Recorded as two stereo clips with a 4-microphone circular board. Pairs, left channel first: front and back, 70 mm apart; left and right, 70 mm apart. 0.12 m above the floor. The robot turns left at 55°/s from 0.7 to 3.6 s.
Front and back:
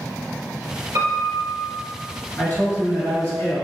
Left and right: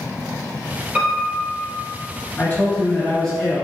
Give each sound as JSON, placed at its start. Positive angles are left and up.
{"t": 0.9, "sound": "a piano", "azimuth_deg": -170, "distance_m": 1.2}
{"t": 2.4, "sound": "a man speaking", "azimuth_deg": 55, "distance_m": 1.9}